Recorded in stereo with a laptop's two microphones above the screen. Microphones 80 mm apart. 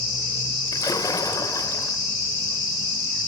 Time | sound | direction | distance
0.7 | a splash | 50° left (ahead or behind) | 1.4 m